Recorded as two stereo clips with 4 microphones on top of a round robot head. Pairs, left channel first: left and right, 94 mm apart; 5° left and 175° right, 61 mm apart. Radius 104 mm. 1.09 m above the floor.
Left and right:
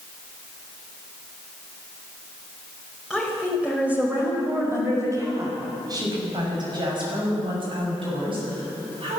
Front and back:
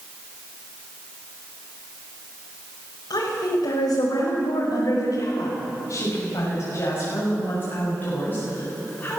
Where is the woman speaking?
5° right, 5.5 m; by 9.2 s 65° right, 9.5 m.